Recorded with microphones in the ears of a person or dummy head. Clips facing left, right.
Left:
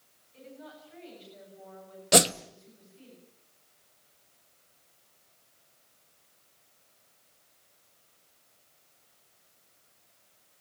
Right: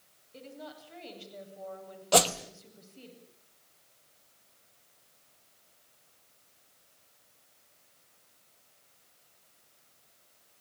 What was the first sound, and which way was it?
A woman speaking, 65° right (ahead or behind).